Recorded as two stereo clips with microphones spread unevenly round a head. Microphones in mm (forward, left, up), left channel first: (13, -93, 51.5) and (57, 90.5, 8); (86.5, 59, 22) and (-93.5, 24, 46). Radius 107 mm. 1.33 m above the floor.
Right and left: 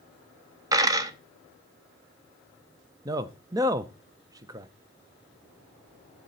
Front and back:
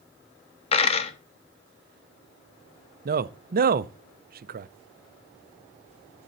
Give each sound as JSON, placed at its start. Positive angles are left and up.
{"t": 0.7, "sound": "a dropped coin", "azimuth_deg": 0, "distance_m": 0.8}
{"t": 3.0, "sound": "a man speaking", "azimuth_deg": 155, "distance_m": 0.5}